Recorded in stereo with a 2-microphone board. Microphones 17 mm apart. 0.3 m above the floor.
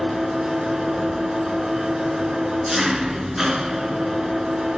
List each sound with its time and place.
0.0 s an engine running: 25° right (ahead or behind), 2.5 m